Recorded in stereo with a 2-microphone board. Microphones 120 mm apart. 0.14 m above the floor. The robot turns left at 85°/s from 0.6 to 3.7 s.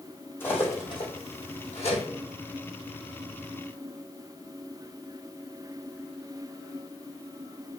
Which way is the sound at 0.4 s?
15° left (ahead or behind).